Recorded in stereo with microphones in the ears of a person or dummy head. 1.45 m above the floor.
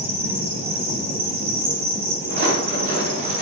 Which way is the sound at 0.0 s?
15° right (ahead or behind).